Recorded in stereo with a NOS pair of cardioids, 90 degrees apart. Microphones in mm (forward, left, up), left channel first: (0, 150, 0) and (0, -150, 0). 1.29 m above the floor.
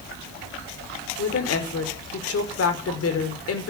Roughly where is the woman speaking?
Ahead left.